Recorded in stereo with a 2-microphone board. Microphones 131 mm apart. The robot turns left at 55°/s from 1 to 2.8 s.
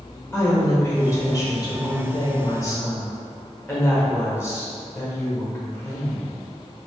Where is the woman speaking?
140° left, 0.9 m; by 6.3 s 40° left, 0.9 m.